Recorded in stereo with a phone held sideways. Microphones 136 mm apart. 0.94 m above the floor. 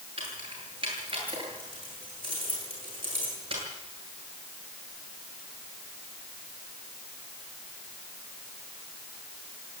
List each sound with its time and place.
0.2 s keys jangling: 40° right (ahead or behind), 10 m